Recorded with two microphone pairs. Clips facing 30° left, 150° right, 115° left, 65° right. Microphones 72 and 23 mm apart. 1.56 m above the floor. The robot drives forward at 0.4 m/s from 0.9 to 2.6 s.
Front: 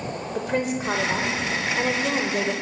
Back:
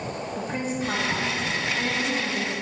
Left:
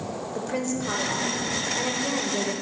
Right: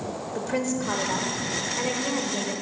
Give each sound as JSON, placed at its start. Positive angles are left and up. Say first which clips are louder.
{"t": 0.3, "sound": "a woman speaking", "louder": "front 5 dB, right 2 dB", "azimuth_deg": 25, "distance_m": 1.3}